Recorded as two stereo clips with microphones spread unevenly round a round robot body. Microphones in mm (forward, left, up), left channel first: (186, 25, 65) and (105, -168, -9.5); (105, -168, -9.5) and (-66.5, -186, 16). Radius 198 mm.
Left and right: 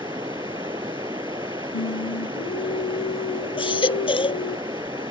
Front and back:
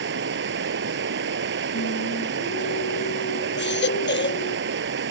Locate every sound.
0.0 s running water: 165° left
1.7 s singing: 45° left
3.6 s a baby crying: straight ahead